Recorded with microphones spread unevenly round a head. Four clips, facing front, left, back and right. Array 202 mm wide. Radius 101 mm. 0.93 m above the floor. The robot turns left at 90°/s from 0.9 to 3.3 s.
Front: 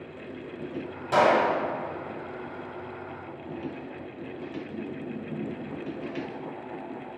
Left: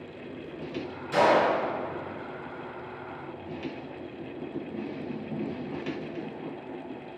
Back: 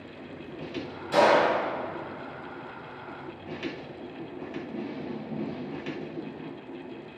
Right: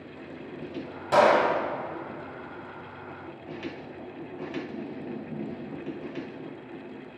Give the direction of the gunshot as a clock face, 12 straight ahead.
2 o'clock.